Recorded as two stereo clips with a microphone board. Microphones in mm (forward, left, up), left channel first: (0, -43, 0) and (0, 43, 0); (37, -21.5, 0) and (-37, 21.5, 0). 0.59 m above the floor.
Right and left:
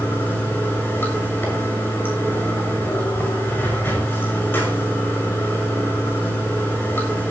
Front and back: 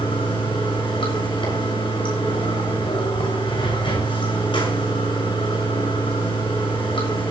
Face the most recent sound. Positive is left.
turn(degrees=-25)